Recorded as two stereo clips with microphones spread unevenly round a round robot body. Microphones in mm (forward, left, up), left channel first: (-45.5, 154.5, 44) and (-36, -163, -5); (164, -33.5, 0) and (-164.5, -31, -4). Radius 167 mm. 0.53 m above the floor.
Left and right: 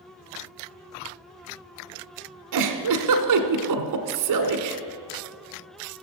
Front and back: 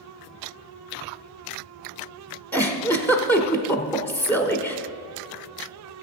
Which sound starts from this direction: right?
A giggle, at 2.5 s.